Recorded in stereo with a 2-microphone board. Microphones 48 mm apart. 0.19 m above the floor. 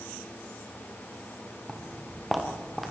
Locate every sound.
1.7 s footsteps: 5° right (ahead or behind), 4 m; by 2.9 s centre (ahead or behind), 5.5 m